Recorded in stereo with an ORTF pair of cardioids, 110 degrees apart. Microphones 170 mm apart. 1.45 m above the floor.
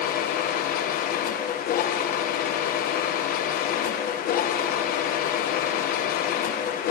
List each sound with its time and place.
0.0 s a machine running: 65° left, 1.1 m